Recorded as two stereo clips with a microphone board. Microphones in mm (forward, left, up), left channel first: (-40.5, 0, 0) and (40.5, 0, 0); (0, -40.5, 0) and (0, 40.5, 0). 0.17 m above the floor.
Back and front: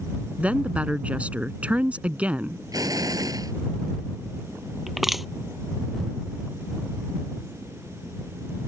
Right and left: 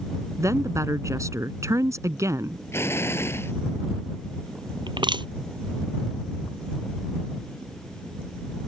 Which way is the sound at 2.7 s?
35° right.